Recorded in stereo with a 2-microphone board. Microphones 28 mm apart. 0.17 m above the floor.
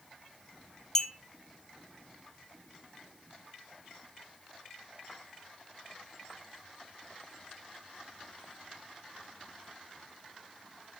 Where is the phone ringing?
No phone ringing in this recording.